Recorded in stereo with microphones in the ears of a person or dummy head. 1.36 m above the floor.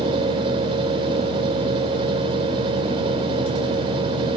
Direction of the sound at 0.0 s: 25° right (ahead or behind).